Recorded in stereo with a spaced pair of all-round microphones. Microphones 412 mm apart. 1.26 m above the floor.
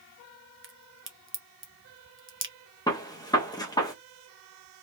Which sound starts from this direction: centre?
A gunshot, at 2.9 s.